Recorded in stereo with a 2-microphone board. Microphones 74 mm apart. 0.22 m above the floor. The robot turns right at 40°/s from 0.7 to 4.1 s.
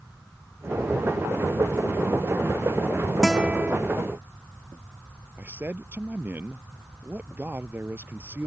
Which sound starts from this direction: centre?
A guitar, at 3.2 s.